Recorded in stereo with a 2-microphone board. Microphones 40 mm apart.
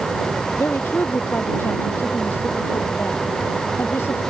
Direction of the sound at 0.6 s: 65° left (ahead or behind).